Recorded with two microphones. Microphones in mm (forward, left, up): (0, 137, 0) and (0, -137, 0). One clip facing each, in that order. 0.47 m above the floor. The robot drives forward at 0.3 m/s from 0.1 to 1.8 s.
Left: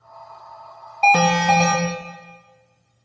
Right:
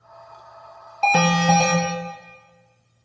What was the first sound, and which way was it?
An alarm, 5° right (ahead or behind).